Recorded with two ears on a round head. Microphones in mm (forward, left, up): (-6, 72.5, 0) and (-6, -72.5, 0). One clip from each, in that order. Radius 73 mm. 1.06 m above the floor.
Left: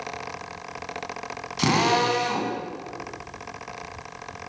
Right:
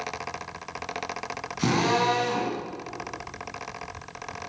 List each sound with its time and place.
1.6 s a drill: 70° left (ahead or behind), 7.5 m